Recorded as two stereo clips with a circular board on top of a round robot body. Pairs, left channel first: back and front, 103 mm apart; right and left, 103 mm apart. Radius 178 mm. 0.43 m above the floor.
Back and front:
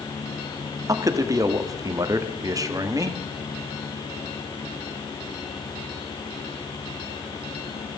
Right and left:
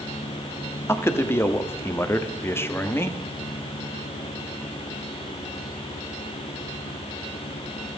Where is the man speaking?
35° right, 1.7 m.